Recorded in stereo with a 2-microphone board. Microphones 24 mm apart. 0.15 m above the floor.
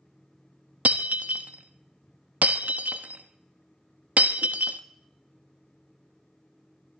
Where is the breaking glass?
75° right (ahead or behind), 1.0 m.